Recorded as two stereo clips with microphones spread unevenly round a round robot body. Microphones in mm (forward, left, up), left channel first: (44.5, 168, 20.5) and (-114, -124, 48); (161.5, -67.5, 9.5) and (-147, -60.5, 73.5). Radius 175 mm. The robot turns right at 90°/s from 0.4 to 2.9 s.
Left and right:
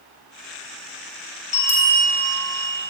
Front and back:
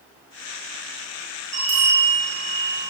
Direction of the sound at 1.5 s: 130° left.